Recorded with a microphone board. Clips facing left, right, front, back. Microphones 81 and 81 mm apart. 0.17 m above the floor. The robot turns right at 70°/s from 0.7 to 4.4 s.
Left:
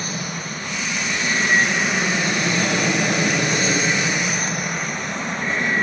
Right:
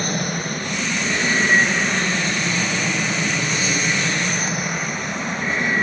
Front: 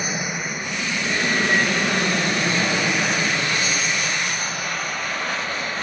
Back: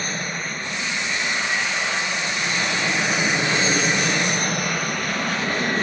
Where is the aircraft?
80° right; by 5.8 s straight behind.